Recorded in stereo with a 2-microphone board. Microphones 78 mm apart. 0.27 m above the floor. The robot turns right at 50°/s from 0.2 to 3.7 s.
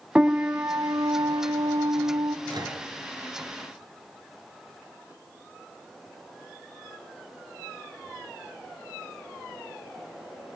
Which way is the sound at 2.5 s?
65° right (ahead or behind).